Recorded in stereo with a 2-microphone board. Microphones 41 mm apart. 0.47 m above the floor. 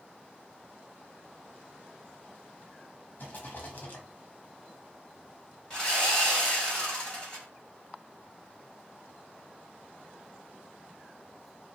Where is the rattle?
50° left (ahead or behind), 0.8 m.